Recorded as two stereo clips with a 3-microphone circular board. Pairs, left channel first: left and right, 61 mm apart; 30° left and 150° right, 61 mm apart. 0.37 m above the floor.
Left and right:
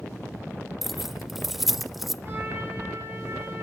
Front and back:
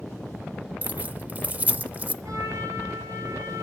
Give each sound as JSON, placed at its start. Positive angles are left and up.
{"t": 0.8, "sound": "keys jangling", "azimuth_deg": -175, "distance_m": 0.5}
{"t": 2.2, "sound": "a trumpet", "azimuth_deg": -145, "distance_m": 5.5}